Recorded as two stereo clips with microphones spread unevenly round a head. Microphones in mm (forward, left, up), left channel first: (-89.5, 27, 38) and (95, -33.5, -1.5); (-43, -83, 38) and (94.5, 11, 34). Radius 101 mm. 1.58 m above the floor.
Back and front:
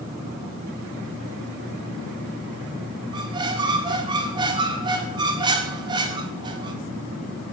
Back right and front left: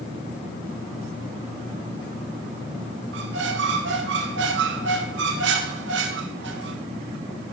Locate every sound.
3.1 s a squeak: 55° left, 0.8 m